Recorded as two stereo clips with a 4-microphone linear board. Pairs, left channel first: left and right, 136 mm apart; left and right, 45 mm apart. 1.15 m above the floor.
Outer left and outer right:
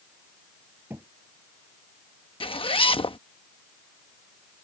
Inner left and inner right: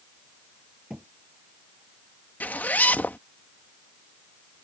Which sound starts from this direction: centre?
A thud, at 0.9 s.